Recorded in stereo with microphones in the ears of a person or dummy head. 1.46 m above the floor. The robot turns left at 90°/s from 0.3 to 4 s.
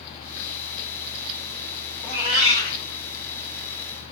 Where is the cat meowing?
Straight ahead, 2 m; by 2.8 s 70° right, 2 m.